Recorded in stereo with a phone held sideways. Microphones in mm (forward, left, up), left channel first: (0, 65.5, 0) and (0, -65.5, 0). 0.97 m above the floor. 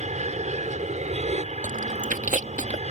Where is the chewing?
75° right (ahead or behind).